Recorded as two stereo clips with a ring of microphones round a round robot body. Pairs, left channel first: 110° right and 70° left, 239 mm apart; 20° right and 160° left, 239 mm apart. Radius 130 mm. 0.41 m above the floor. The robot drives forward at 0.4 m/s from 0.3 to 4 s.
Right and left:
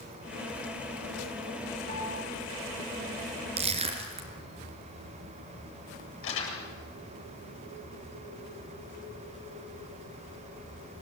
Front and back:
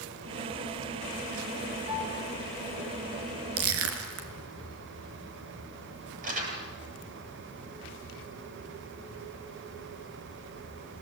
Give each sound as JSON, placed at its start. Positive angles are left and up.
{"t": 1.9, "sound": "a piano", "azimuth_deg": 85, "distance_m": 2.5}
{"t": 3.6, "sound": "crushing", "azimuth_deg": 130, "distance_m": 3.0}
{"t": 6.2, "sound": "crumpling", "azimuth_deg": -145, "distance_m": 8.5}